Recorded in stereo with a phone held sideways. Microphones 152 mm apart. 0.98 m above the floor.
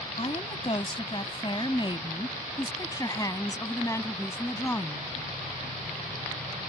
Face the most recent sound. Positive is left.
turn(degrees=15)  # may be behind; listen again after turning